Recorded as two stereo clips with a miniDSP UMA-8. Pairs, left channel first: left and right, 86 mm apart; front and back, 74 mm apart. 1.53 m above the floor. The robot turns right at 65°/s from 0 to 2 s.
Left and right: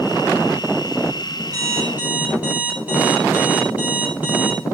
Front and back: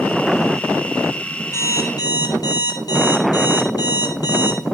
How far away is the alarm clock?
About 6 m.